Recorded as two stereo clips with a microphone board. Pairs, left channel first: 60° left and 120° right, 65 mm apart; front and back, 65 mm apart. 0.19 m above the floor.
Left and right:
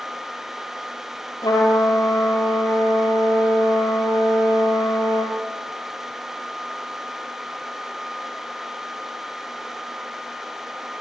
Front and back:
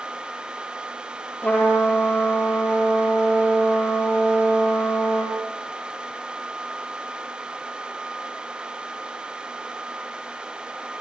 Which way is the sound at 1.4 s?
70° left.